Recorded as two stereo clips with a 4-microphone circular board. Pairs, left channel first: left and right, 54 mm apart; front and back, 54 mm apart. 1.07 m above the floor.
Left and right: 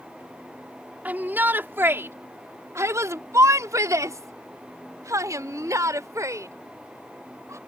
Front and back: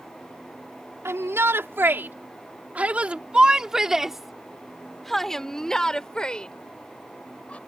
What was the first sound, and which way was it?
A shout, 150° right.